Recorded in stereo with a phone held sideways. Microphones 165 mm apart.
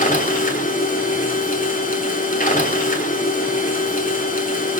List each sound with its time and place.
0.0 s a machine running: 55° left (ahead or behind), 3 m